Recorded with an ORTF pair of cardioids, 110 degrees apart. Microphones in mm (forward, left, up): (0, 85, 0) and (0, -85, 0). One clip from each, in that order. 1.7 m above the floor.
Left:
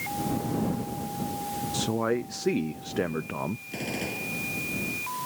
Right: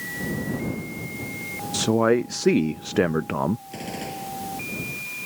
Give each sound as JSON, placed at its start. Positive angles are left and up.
{"t": 1.7, "sound": "a man speaking", "azimuth_deg": -35}
{"t": 3.7, "sound": "a gunshot", "azimuth_deg": 5}